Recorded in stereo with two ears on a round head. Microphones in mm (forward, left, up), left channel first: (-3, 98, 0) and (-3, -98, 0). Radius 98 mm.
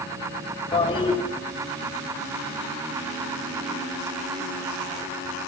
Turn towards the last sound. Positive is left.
turn(degrees=20)  # may be behind; listen again after turning